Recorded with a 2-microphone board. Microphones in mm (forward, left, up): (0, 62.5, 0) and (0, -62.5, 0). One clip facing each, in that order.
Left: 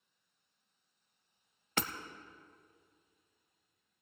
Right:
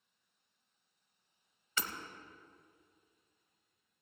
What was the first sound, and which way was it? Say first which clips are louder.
Hammering: left 4 dB; 60° left (ahead or behind).